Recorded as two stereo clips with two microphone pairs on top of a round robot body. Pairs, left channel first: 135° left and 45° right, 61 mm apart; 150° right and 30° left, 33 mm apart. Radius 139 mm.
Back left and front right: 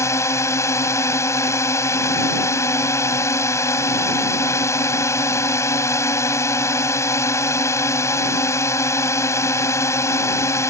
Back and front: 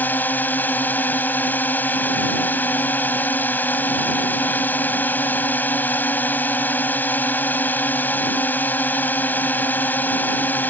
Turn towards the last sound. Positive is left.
turn(degrees=175)